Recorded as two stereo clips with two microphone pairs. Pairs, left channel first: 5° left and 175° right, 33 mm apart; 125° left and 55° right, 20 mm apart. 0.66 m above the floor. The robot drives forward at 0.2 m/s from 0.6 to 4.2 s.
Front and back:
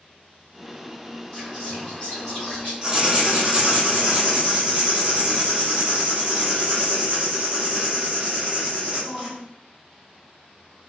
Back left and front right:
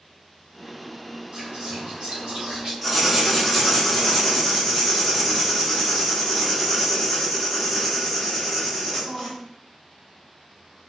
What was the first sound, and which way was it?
Whispering, 55° right.